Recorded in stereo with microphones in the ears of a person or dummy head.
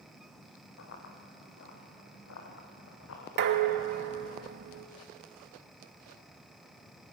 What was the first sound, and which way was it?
Running footsteps, 65° left (ahead or behind).